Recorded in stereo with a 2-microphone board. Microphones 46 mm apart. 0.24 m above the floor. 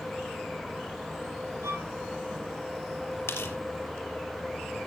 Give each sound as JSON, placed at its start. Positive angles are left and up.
{"t": 1.6, "sound": "a violin", "side_deg": -85, "distance_m": 2.5}
{"t": 3.3, "sound": "tearing paper", "side_deg": 70, "distance_m": 3.5}